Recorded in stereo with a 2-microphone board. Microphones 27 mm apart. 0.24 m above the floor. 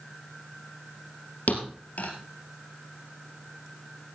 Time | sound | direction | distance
1.5 | a thud | 70° left (ahead or behind) | 3 m